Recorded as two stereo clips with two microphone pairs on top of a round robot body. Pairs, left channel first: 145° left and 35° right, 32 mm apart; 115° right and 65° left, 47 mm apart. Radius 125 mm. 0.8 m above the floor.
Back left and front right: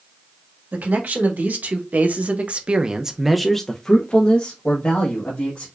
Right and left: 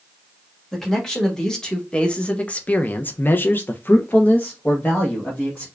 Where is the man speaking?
30° right, 1.5 m; by 5.7 s 175° left, 1.4 m.